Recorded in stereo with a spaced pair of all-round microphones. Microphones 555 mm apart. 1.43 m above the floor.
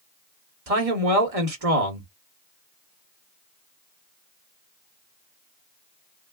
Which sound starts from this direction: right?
A man speaking, at 0.7 s.